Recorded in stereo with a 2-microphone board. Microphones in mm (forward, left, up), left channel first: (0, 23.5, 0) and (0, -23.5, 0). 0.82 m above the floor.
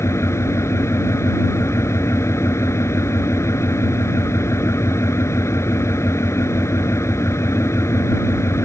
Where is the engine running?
80° left.